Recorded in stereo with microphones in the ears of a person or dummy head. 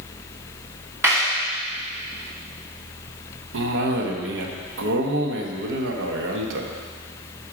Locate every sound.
1.0 s a clap: 15° right (ahead or behind), 1.6 m
3.5 s a cough: 75° right (ahead or behind), 1.3 m